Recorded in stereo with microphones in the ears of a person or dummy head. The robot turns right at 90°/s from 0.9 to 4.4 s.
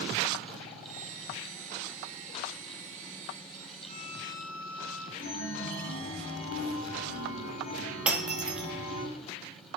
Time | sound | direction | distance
3.9 | a violin | 110° left | 0.6 m
5.2 | a chime | 50° left (ahead or behind) | 4 m
8.1 | breaking glass | 10° right (ahead or behind) | 0.9 m